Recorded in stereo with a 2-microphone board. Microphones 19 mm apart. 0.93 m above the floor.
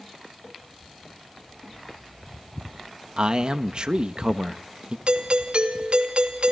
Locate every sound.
3.2 s a man speaking: 45° right (ahead or behind), 1.2 m
5.1 s a doorbell: 55° right (ahead or behind), 2.5 m